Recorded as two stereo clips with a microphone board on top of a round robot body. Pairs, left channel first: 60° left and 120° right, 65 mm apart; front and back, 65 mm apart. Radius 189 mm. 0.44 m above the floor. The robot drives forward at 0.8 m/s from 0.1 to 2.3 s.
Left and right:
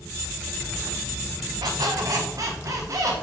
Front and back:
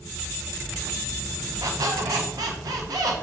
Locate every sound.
1.6 s a squeak: 140° right, 0.7 m; by 3.1 s 155° right, 1.2 m